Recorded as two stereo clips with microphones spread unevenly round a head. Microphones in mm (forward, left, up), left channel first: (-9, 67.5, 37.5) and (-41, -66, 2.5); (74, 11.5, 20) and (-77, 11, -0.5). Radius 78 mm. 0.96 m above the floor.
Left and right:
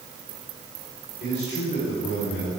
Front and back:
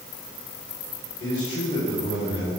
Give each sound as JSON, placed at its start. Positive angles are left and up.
{"t": 1.2, "sound": "a man speaking", "azimuth_deg": 50, "distance_m": 3.5}